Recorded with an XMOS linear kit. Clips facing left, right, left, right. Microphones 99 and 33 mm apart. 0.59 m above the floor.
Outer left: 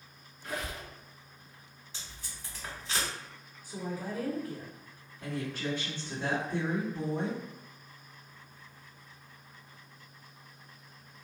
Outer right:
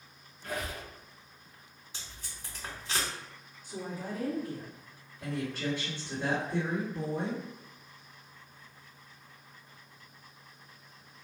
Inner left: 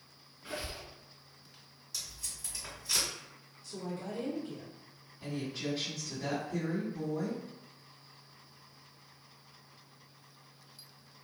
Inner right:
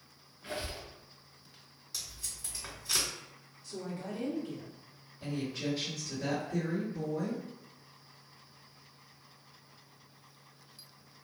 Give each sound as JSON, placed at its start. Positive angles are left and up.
{"t": 0.4, "sound": "a squeak", "side_deg": -55, "distance_m": 1.7}
{"t": 1.9, "sound": "tape being pulled", "side_deg": -15, "distance_m": 2.0}
{"t": 3.6, "sound": "a woman speaking", "side_deg": -20, "distance_m": 1.7}
{"t": 5.2, "sound": "a woman speaking", "side_deg": 5, "distance_m": 1.9}